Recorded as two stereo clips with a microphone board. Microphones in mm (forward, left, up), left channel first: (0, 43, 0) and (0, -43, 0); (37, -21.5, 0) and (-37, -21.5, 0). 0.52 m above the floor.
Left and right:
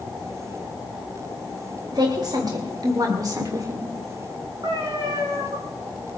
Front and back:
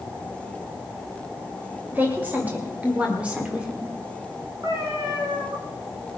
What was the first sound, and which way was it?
A woman speaking, 115° right.